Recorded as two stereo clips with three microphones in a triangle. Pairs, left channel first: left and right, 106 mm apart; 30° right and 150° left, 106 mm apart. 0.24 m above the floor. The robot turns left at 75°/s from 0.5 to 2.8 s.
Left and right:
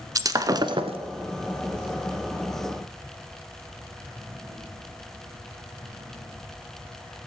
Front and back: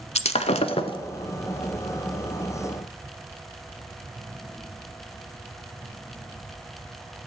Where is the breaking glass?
35° right, 0.7 m; by 1.0 s 70° right, 0.7 m.